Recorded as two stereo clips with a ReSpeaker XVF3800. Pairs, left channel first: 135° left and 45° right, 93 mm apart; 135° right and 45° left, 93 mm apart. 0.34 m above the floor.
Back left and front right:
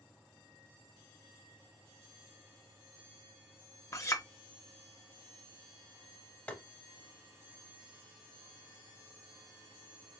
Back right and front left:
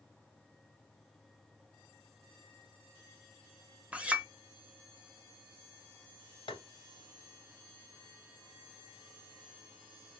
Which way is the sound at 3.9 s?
110° left.